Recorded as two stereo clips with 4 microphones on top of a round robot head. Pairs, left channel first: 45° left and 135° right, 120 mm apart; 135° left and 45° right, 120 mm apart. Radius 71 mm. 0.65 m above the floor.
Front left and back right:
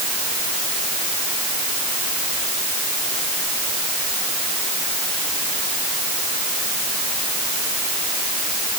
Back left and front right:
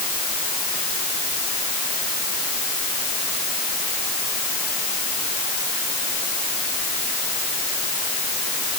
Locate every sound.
Only background noise.